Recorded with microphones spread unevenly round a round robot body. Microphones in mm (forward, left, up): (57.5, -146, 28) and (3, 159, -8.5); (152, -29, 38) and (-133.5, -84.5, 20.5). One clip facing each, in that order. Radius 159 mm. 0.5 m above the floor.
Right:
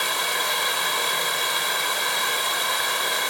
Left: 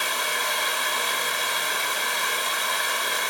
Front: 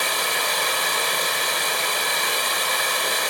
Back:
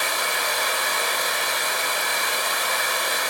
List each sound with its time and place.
0.0 s running water: 35° right, 1.9 m